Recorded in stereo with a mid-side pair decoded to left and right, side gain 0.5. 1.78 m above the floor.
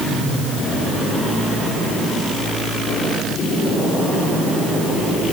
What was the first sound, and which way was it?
Only background noise.